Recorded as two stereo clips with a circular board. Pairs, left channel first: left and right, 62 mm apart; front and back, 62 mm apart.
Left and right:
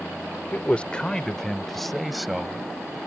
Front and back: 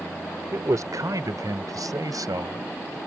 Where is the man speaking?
155° left; by 3.0 s 175° right.